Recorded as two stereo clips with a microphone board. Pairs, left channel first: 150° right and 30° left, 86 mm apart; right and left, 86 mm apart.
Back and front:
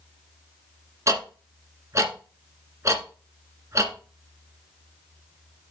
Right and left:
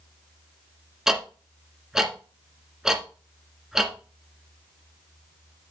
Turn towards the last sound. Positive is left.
turn(degrees=10)